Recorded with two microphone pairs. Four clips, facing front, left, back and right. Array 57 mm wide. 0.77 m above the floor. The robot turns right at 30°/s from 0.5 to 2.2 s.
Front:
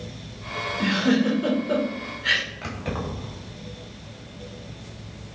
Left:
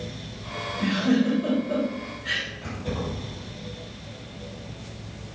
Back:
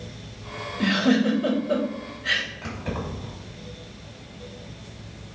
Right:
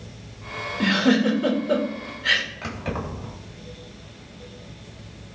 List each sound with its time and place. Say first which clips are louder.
0.8 s a giggle: right 3 dB, back 1 dB; 85° right, 2 m; by 2.4 s 40° right, 2 m
2.6 s keys jangling: right 1 dB, front 1 dB; 50° right, 3 m